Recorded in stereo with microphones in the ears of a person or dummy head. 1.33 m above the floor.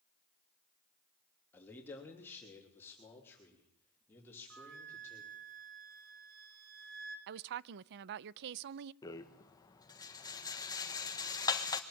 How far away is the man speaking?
About 3 m.